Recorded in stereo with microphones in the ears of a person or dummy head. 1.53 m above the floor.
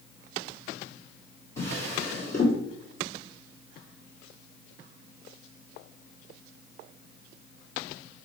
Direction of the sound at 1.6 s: 10° left (ahead or behind).